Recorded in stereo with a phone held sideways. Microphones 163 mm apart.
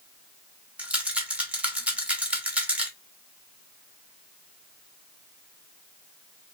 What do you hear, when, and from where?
0.8 s a rattle: 10° right (ahead or behind), 1.1 m